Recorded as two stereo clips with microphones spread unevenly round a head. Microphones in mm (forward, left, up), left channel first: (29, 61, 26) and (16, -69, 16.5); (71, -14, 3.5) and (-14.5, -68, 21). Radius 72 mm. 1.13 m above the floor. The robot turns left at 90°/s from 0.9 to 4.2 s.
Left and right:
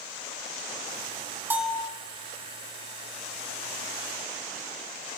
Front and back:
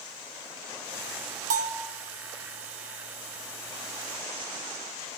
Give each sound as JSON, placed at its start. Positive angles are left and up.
{"t": 1.5, "sound": "a bell", "azimuth_deg": -170, "distance_m": 1.9}